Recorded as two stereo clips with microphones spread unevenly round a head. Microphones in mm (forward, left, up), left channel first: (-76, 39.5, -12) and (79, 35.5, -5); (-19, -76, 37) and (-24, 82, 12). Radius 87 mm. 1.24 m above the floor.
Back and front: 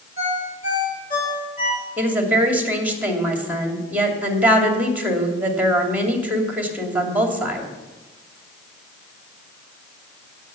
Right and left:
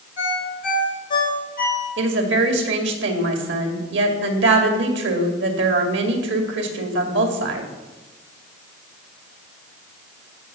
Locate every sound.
0.2 s a ringtone: 130° right, 4.5 m
2.0 s a woman speaking: 80° left, 2.5 m